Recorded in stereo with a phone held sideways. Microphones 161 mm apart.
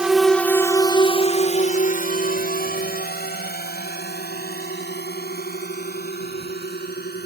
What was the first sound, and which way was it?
A drone, 5° right (ahead or behind).